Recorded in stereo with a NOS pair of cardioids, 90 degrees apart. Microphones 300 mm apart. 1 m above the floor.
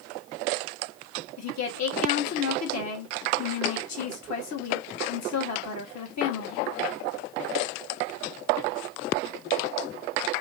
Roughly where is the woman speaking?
Ahead left.